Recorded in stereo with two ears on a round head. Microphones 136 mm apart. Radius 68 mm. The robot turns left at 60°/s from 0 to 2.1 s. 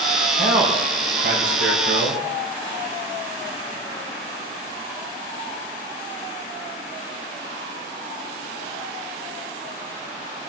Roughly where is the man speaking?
Ahead.